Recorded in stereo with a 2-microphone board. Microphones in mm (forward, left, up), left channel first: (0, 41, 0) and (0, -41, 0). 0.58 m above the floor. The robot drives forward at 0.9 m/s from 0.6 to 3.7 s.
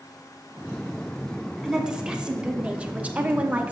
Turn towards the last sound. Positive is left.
turn(degrees=-20)  # may be behind; listen again after turning